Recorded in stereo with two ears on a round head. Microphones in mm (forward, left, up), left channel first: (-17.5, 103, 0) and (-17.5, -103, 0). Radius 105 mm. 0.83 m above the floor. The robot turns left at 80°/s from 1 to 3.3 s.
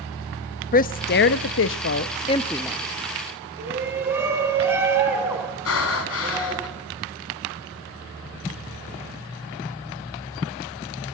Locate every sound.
0.7 s a woman speaking: 40° left (ahead or behind), 0.7 m; by 2.8 s 10° right (ahead or behind), 0.7 m
3.6 s a shout: 10° right (ahead or behind), 8 m
5.7 s breathing: 70° left (ahead or behind), 2.5 m